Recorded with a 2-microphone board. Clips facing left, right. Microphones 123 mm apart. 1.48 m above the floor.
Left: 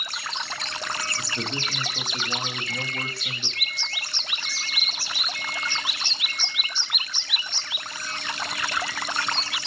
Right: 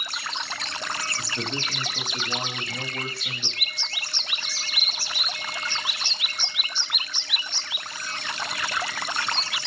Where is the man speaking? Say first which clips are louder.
Even; 5° left (ahead or behind), 3 m.